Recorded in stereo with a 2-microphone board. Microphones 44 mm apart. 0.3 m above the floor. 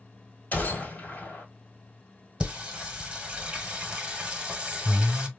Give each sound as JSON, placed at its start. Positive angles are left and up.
{"t": 0.5, "sound": "a gunshot", "side_deg": 45, "distance_m": 1.3}
{"t": 2.4, "sound": "singing", "side_deg": -20, "distance_m": 1.2}